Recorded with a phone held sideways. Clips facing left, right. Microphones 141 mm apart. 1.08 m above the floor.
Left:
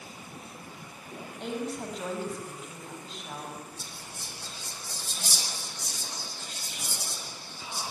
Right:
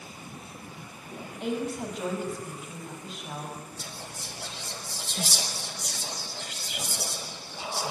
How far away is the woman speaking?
About 5.5 m.